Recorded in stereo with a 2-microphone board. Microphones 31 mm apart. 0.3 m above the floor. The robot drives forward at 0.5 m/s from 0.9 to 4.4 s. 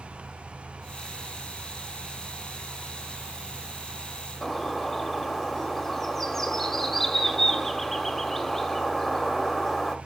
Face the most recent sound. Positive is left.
turn(degrees=10)  # may be behind; listen again after turning